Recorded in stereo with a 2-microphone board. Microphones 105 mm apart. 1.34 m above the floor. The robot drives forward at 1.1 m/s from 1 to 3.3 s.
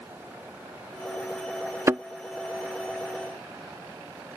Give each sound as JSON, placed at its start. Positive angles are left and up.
{"t": 1.9, "sound": "a thud", "side_deg": -30}